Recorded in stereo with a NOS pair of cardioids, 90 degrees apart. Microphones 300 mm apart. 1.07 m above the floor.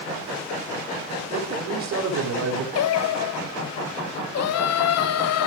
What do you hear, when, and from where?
1.3 s a man speaking: 60° right, 4.5 m
2.8 s singing: 60° left, 0.8 m